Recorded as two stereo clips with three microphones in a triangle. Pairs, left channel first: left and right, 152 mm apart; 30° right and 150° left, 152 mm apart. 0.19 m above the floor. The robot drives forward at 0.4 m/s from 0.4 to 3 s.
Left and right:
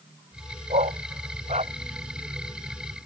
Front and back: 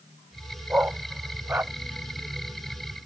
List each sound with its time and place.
0.7 s a dog barking: 130° right